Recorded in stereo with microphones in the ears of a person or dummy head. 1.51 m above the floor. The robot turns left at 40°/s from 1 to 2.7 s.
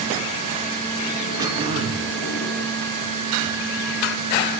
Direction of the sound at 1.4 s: 20° right (ahead or behind).